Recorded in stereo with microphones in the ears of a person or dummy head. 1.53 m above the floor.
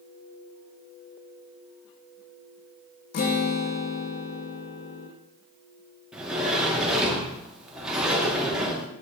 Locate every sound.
3.1 s a guitar: 55° left (ahead or behind), 0.9 m
6.1 s a sliding door: 5° right (ahead or behind), 1.3 m